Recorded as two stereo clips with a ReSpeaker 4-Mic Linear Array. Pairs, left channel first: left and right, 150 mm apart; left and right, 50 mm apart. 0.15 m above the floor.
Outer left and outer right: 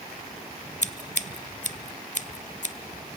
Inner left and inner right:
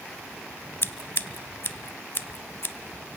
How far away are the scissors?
About 0.5 m.